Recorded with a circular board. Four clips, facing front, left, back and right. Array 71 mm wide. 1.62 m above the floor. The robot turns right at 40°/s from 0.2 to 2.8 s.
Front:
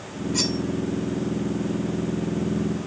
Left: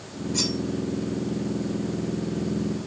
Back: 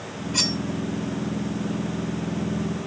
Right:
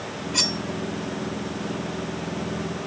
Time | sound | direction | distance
0.3 | cutlery clinking | 135° right | 1.5 m